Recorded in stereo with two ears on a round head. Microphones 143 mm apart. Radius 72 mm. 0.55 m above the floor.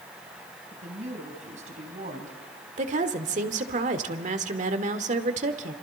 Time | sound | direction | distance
0.7 | a woman speaking | 45° right (ahead or behind) | 3.5 m
2.8 | a woman speaking | 50° right (ahead or behind) | 1.6 m